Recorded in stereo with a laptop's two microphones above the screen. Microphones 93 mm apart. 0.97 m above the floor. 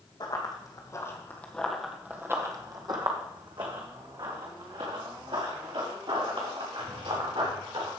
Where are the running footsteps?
50° left (ahead or behind), 2 m; by 7.9 s 80° right, 7 m.